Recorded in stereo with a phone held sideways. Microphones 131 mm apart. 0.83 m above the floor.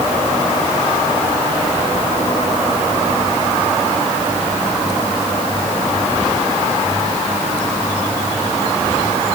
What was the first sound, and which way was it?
Only background noise.